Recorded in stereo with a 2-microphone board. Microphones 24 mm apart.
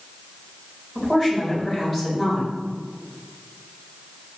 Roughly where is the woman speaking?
Centre.